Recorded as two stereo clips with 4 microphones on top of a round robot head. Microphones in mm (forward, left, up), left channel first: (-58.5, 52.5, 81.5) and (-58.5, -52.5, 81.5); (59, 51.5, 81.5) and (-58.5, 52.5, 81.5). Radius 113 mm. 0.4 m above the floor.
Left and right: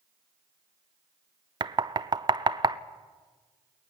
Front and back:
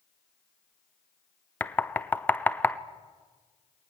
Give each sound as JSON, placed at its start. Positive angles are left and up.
{"t": 1.6, "sound": "knocking", "azimuth_deg": -70, "distance_m": 0.8}